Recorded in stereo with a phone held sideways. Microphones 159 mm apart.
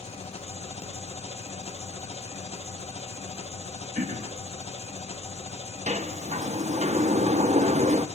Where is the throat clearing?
55° right (ahead or behind), 1.1 m.